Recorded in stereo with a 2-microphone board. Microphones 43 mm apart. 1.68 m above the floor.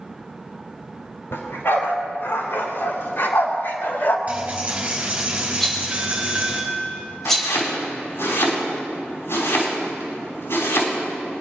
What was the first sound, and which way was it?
A dog barking, 70° left (ahead or behind).